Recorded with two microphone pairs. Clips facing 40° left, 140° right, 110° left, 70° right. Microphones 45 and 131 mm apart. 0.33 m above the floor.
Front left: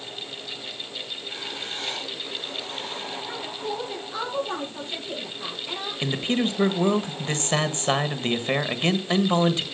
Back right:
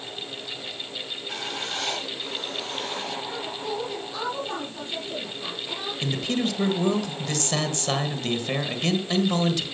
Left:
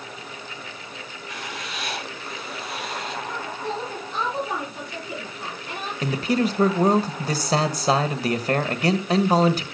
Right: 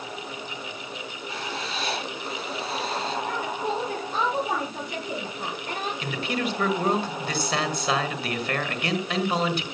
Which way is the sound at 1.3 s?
130° right.